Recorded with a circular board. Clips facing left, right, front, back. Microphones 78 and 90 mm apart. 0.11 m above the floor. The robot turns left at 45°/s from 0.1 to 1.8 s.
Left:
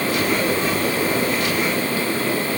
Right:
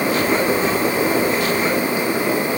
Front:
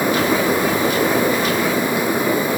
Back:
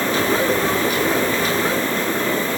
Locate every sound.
Only background noise.